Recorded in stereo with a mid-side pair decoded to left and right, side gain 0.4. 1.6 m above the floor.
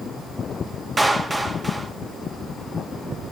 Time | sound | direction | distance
1.0 | a clap | 15° right | 2.5 m